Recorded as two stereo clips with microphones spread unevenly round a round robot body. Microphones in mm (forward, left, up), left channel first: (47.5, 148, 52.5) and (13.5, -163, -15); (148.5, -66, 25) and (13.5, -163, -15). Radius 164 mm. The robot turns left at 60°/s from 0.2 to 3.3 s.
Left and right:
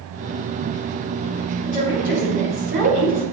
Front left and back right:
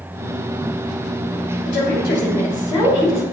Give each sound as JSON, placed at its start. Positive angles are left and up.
{"t": 1.6, "sound": "a woman speaking", "azimuth_deg": 20, "distance_m": 3.0}